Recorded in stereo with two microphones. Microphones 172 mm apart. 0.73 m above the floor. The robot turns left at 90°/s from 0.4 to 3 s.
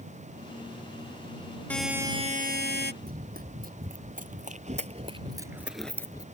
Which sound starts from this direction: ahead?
A buzzer, at 1.7 s.